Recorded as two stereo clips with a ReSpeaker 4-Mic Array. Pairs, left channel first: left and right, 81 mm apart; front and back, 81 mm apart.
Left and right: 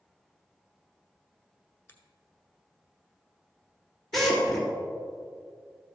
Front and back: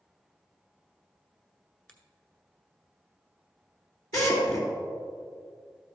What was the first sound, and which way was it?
A finger snap, 60° left.